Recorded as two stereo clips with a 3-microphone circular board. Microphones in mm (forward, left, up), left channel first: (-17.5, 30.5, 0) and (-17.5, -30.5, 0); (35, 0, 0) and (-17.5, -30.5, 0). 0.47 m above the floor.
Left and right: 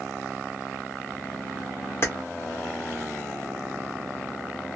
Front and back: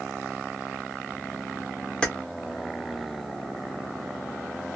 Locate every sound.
2.0 s keys jangling: 100° left, 0.7 m